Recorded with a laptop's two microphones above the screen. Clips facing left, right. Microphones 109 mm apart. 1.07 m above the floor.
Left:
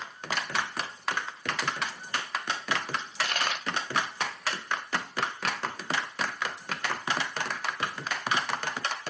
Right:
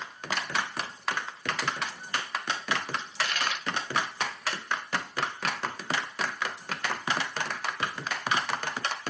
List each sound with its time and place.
3.0 s a dropped coin: 45° left (ahead or behind), 0.6 m